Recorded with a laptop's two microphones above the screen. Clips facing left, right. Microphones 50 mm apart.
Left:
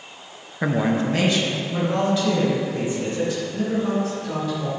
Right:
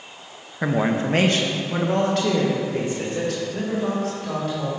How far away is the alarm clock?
No alarm clock in this recording.